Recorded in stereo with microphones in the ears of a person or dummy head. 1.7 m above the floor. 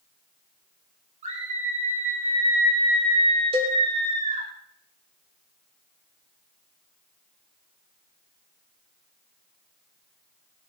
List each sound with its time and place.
1.2 s a scream: 35° right (ahead or behind), 5 m
3.5 s a cowbell: 35° right (ahead or behind), 3.5 m